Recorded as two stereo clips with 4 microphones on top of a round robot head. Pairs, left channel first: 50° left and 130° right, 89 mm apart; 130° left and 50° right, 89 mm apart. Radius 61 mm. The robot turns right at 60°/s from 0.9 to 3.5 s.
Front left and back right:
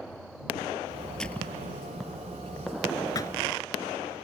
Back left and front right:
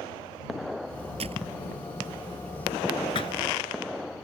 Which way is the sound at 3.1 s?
100° left.